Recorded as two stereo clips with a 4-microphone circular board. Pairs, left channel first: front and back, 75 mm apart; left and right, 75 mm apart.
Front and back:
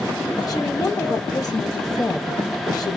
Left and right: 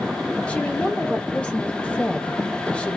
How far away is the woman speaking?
About 1.1 m.